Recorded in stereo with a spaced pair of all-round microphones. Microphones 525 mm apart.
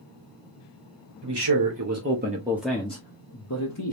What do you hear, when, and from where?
1.2 s a man speaking: 55° right (ahead or behind), 0.9 m; by 3.9 s 40° left (ahead or behind), 1.0 m